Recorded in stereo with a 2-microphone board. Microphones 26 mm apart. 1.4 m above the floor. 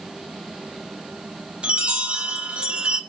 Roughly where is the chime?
Right.